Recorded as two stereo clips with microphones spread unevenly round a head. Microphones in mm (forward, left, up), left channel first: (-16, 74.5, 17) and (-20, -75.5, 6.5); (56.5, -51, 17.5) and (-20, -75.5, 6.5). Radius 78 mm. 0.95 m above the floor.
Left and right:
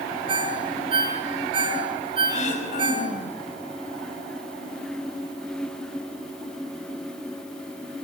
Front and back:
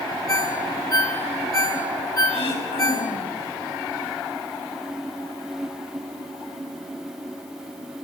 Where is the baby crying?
I don't hear a baby crying.